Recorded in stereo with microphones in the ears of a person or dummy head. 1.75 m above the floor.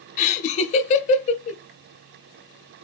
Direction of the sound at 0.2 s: 40° left (ahead or behind).